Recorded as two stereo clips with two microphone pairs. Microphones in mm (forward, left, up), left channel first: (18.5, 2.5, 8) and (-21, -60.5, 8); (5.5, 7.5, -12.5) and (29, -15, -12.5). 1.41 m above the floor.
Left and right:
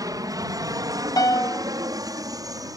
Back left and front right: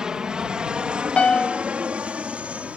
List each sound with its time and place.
0.0 s an aircraft: 110° right; by 2.8 s 95° right
1.2 s a piano: 80° left